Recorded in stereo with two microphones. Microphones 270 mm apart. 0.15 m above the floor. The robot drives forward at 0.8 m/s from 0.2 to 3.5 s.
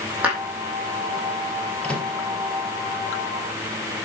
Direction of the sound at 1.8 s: 5° left (ahead or behind).